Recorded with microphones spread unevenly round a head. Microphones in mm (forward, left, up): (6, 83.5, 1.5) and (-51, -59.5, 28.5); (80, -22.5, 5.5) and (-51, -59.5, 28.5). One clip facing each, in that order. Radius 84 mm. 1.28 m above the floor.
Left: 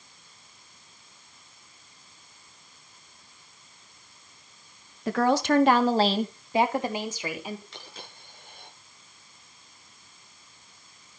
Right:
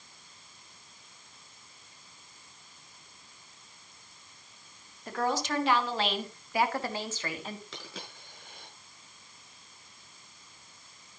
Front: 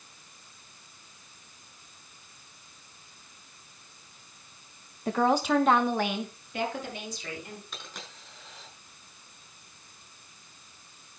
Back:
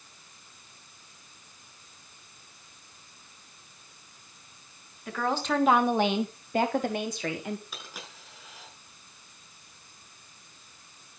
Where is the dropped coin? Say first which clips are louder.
Right 1 dB, even; 80° right, 7 m.